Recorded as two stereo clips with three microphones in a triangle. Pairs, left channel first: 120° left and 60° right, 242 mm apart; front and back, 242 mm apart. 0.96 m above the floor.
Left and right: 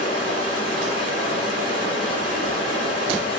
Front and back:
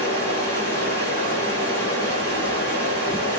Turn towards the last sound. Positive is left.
turn(degrees=-75)